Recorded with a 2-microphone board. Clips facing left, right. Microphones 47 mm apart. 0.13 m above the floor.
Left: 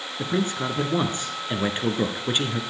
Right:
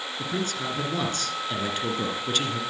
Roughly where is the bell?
I don't hear a bell.